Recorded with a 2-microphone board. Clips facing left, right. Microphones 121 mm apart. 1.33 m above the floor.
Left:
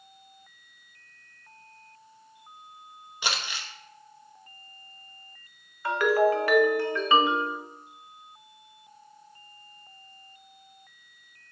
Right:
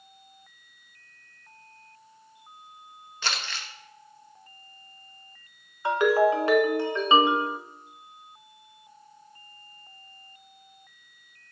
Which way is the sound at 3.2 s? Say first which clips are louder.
Left 1 dB; 15° left (ahead or behind).